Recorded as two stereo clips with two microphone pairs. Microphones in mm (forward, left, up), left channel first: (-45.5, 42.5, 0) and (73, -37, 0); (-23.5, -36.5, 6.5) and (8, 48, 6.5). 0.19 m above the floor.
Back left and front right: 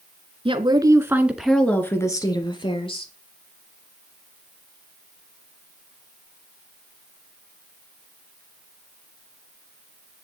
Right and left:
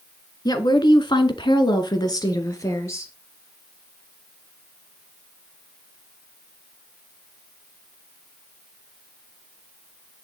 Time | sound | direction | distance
0.5 | a woman speaking | 75° right | 2.5 m